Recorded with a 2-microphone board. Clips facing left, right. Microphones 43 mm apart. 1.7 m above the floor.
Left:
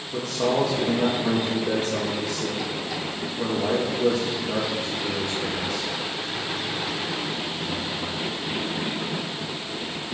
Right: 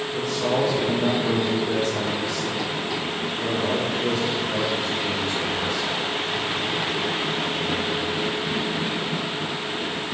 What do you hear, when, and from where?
0.1 s a man speaking: 75° left (ahead or behind), 3 m